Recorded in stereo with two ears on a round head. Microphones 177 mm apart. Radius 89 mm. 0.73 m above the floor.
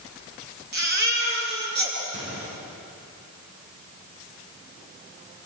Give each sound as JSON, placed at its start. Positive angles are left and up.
{"t": 0.7, "sound": "a baby crying", "side_deg": -55, "distance_m": 6.5}
{"t": 2.1, "sound": "a gunshot", "side_deg": -65, "distance_m": 5.5}